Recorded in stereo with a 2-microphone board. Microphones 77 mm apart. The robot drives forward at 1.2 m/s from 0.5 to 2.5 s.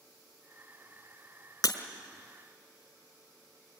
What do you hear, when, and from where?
1.6 s breaking glass: 50° left (ahead or behind), 1.7 m; by 1.8 s 45° left (ahead or behind), 1.8 m